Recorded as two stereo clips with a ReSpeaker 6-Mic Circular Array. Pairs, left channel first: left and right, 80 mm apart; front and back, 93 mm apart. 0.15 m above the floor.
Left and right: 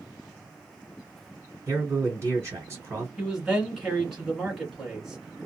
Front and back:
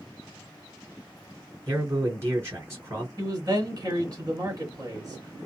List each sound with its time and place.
1.7 s a man speaking: 130° right, 2 m
3.2 s a man speaking: straight behind, 1.6 m